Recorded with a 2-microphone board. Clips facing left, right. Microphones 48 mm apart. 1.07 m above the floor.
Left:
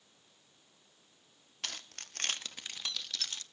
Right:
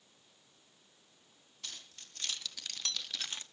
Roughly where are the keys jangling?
Left.